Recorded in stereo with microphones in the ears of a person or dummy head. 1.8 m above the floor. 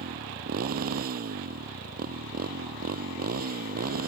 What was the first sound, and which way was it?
A motorcycle, 45° right (ahead or behind).